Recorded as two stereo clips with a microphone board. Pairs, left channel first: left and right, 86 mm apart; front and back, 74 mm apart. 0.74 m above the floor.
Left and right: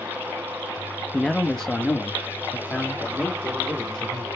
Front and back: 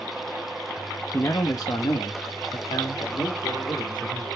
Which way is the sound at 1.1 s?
Straight ahead.